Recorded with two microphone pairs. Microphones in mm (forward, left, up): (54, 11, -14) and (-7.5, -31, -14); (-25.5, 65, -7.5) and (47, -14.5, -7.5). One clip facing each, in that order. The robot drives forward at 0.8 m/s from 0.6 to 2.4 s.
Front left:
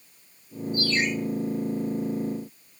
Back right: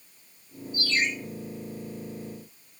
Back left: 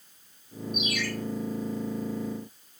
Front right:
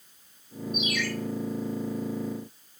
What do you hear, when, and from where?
0.7 s a ringtone: 80° left, 3.5 m